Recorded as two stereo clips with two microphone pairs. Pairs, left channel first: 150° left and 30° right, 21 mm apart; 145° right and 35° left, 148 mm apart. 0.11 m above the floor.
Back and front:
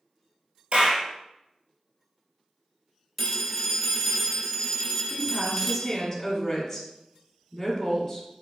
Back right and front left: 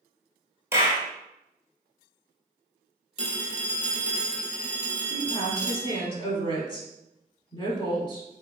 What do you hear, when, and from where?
0.7 s a clap: 35° right, 1.4 m
3.2 s a phone ringing: 110° right, 1.3 m
5.1 s a woman speaking: 140° right, 1.8 m